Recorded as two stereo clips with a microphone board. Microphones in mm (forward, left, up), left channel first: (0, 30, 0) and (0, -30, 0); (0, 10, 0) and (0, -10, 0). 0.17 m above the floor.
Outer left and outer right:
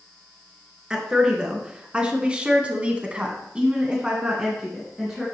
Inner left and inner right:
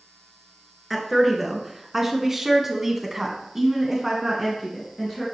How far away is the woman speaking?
About 2.5 m.